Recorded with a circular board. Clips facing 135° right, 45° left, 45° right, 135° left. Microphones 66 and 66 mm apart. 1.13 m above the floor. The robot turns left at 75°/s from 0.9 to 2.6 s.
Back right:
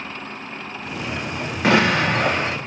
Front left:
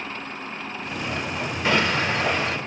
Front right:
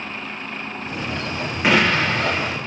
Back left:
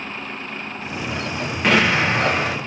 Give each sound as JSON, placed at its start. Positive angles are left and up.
{"t": 1.6, "sound": "an explosion", "azimuth_deg": -125, "distance_m": 0.8}